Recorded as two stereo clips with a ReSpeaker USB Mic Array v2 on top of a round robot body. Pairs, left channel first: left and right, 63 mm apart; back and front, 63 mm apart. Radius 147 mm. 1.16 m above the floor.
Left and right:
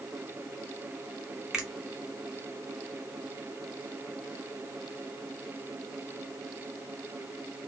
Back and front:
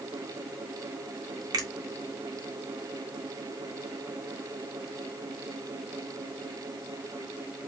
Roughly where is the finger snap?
Ahead.